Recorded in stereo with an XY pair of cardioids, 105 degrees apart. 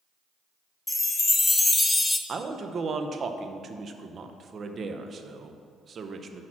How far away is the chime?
About 0.6 m.